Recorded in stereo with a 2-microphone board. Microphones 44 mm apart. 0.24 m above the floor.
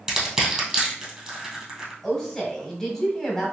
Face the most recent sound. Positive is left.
turn(degrees=10)  # may be behind; listen again after turning